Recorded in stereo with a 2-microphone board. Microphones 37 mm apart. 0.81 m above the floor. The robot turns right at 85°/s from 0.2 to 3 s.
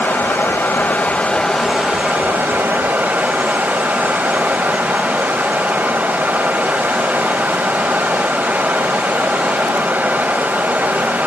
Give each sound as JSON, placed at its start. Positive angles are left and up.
{"t": 0.0, "sound": "running water", "azimuth_deg": 65, "distance_m": 1.9}